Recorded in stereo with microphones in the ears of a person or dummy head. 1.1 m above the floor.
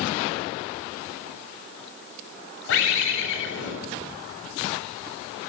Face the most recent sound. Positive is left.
turn(degrees=85)